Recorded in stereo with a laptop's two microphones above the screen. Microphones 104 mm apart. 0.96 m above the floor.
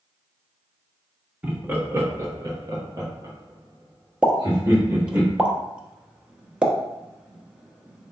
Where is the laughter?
15° right (ahead or behind), 1.1 m; by 5.2 s 30° right (ahead or behind), 2.5 m.